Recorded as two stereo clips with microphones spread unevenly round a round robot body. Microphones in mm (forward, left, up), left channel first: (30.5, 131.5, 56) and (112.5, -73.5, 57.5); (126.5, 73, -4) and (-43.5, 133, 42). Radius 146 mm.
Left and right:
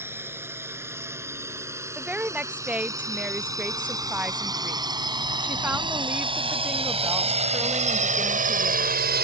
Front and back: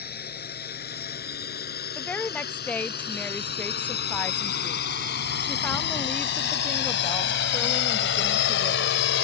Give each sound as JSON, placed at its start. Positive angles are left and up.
{"t": 0.0, "sound": "a drone", "azimuth_deg": 10}
{"t": 1.9, "sound": "a woman speaking", "azimuth_deg": 10}